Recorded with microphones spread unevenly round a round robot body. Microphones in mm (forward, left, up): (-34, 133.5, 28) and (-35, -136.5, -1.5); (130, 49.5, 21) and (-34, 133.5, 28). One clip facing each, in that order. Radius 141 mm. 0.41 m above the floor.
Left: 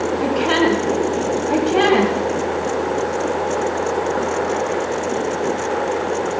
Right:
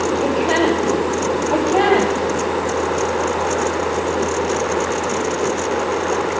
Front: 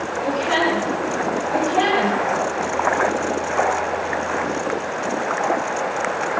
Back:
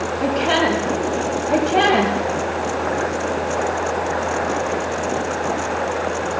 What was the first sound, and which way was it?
A woman speaking, 150° left.